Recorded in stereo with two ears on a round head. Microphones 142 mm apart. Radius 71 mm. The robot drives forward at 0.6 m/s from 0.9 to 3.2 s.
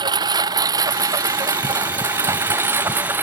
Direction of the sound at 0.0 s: 25° right (ahead or behind).